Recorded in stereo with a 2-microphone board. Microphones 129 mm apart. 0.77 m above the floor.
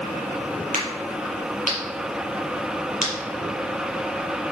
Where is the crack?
80° right, 4.5 m.